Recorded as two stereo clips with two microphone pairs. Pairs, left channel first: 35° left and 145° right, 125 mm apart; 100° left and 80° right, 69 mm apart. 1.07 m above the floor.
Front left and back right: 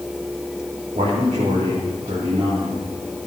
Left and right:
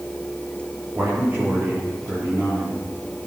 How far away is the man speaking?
About 3 m.